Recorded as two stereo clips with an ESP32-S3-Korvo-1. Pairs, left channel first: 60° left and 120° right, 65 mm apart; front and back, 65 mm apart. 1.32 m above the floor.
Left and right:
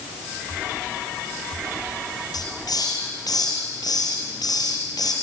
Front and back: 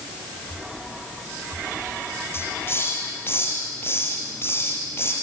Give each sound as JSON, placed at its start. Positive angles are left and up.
{"t": 2.3, "sound": "a hiss", "azimuth_deg": 55, "distance_m": 5.5}